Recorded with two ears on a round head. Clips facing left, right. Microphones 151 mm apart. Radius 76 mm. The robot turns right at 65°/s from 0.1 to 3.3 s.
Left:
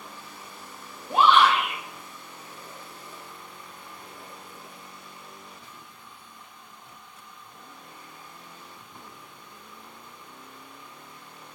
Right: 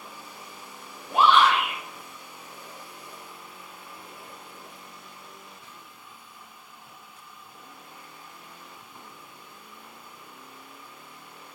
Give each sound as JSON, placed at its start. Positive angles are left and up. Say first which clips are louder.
{"t": 1.1, "sound": "a shout", "louder": "even", "azimuth_deg": 150, "distance_m": 0.5}